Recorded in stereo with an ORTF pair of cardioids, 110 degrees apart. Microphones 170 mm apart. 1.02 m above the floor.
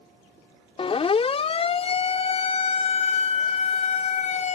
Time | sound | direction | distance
0.8 | a siren | 35° left | ?